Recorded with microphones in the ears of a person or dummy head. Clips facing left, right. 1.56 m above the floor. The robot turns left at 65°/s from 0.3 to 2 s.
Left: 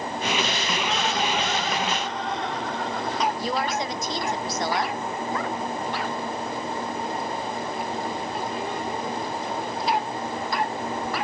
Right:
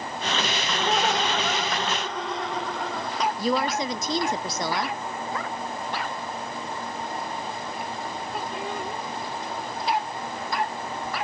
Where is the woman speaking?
75° right (ahead or behind), 0.5 m.